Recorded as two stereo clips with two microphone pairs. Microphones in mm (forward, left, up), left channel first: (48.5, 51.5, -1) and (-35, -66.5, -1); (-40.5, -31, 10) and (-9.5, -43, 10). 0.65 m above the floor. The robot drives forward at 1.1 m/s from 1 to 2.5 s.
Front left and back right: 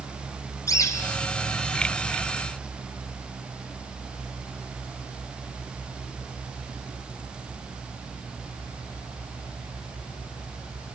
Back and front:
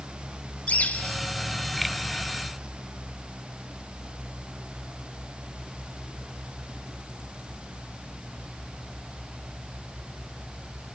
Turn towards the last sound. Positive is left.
turn(degrees=145)